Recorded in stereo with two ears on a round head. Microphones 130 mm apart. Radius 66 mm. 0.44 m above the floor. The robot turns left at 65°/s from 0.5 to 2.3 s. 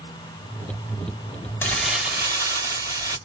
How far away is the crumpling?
About 1.9 m.